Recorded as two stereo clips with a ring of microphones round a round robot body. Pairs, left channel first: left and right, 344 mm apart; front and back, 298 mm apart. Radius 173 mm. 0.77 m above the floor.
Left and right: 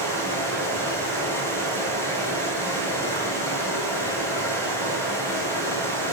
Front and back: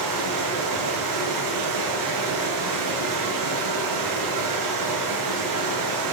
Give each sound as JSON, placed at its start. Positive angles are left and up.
{"t": 0.0, "sound": "running water", "azimuth_deg": 175, "distance_m": 7.5}